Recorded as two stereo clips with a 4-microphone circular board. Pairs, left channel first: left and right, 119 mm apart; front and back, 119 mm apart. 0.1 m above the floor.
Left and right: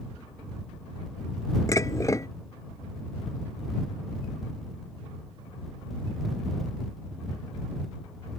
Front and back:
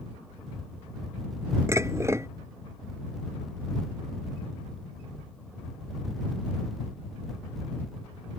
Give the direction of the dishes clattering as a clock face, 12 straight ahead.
8 o'clock.